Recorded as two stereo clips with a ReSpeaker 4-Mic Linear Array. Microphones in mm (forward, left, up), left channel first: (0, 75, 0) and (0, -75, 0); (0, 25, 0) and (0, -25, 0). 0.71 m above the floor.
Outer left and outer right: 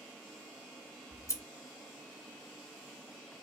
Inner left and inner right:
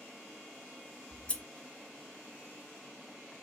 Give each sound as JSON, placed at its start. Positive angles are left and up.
{"t": 1.1, "sound": "scissors", "side_deg": 20, "distance_m": 0.5}